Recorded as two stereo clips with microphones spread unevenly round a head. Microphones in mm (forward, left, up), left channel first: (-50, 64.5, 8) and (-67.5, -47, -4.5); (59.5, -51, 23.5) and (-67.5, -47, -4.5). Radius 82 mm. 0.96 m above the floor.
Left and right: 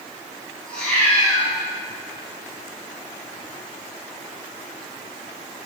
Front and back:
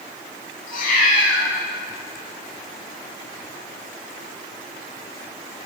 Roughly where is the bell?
I don't hear a bell.